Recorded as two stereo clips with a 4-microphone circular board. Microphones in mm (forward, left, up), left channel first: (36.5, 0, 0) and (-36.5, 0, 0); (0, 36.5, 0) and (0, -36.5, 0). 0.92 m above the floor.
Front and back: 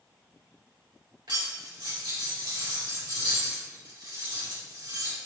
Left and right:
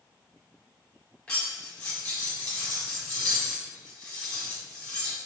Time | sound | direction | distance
1.3 | cutlery clinking | 165° left | 1.6 m